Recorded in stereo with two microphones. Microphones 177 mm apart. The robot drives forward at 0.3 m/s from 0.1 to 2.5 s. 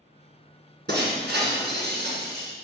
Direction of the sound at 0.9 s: 80° right.